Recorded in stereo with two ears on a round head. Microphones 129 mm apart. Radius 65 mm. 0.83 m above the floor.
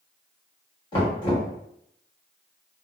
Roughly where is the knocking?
Left.